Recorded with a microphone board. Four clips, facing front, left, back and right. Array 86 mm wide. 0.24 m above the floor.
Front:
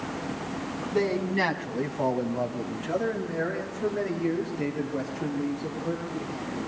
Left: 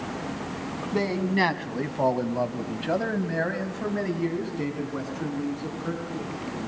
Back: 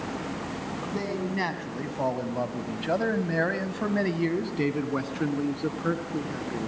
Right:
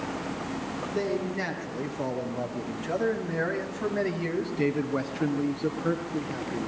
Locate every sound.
0.9 s a man speaking: 70° left, 2 m; by 6.7 s 155° right, 4 m